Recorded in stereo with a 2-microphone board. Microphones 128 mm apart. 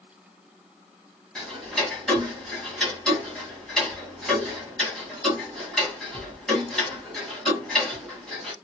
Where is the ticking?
5° left (ahead or behind), 2 m.